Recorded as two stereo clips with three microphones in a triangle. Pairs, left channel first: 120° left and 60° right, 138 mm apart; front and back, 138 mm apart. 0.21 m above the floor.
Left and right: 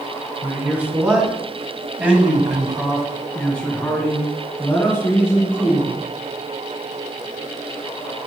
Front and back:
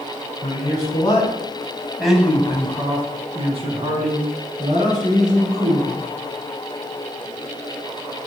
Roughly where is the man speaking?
Ahead.